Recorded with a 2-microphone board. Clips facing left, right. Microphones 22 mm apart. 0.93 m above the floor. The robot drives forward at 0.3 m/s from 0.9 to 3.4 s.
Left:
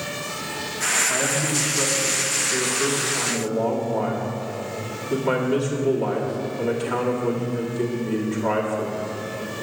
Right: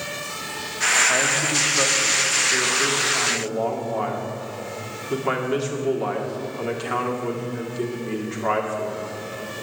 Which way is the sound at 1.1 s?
55° right (ahead or behind).